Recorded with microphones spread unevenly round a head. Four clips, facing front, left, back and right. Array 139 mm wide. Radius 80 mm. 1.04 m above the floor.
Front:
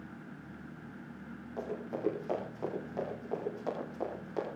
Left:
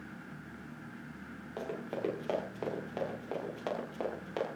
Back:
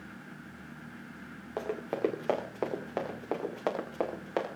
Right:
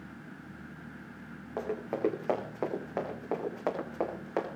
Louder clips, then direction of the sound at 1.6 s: Right 5 dB, back 6 dB; 165° right.